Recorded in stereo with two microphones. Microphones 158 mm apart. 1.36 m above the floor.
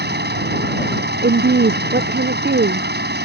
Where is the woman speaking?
80° right.